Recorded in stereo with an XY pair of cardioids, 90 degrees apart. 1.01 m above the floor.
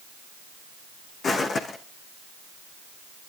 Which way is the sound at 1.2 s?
55° left.